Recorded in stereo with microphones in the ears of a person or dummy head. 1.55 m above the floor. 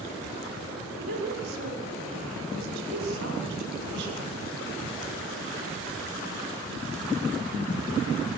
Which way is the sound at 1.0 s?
80° right.